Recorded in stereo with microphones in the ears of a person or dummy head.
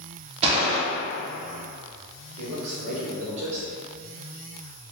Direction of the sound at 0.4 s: 35° right (ahead or behind).